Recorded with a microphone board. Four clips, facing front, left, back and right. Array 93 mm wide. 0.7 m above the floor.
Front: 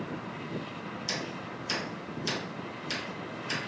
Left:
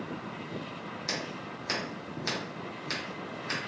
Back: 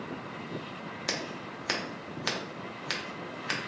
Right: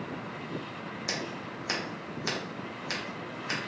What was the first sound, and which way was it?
Scissors, 175° right.